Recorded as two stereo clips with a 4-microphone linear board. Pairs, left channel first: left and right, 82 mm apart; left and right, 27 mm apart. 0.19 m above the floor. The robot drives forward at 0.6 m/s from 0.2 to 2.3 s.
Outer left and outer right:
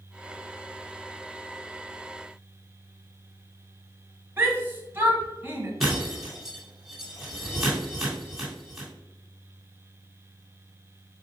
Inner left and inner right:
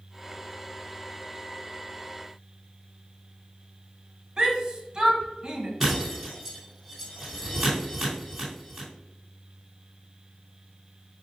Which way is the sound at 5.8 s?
Centre (ahead or behind).